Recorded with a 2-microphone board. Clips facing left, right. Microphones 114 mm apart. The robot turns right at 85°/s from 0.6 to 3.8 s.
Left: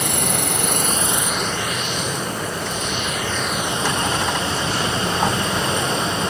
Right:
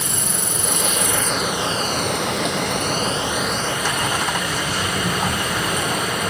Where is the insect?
115° left; by 6.3 s 25° left.